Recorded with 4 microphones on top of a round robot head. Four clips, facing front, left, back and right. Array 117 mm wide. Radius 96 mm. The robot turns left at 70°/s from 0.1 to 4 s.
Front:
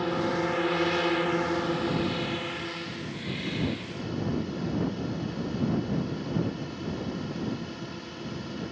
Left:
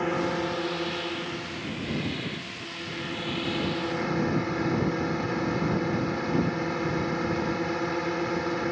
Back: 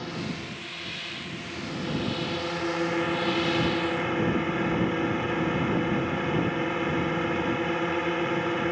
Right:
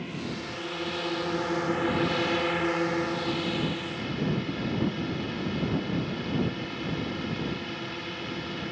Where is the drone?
60° left; by 8.7 s 145° left.